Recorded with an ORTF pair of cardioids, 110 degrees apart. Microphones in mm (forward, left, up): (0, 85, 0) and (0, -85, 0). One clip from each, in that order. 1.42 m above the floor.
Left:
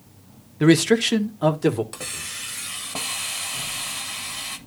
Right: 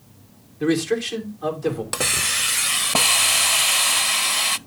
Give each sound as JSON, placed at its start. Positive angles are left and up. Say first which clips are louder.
{"t": 0.6, "sound": "a man speaking", "louder": "left 4 dB", "azimuth_deg": 55, "distance_m": 1.3}
{"t": 1.9, "sound": "a hiss", "louder": "right 11 dB", "azimuth_deg": -50, "distance_m": 0.5}